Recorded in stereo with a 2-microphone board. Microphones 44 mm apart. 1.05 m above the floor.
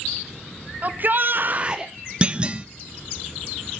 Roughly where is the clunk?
Right.